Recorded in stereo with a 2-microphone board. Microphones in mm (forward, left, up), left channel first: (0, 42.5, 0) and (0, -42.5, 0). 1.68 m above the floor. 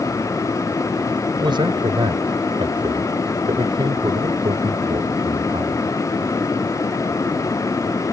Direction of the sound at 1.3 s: 65° right (ahead or behind).